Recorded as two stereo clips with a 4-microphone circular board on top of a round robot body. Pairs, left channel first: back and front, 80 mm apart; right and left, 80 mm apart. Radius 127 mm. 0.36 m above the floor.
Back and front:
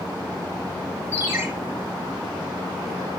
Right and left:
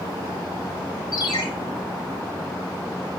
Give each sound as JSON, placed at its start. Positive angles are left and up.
{"t": 1.1, "sound": "a ringtone", "azimuth_deg": -70, "distance_m": 1.7}